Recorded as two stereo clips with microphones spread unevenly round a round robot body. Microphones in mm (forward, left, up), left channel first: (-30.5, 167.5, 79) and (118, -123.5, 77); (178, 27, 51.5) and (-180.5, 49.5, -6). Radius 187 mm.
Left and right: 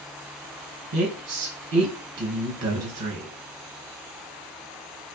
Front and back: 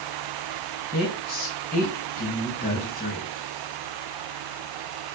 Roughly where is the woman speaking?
Right.